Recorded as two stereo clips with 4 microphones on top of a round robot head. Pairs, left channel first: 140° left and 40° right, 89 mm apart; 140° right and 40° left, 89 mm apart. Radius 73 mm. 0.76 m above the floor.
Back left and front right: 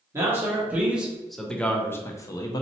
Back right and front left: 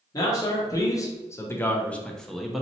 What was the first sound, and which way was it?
A man speaking, 100° right.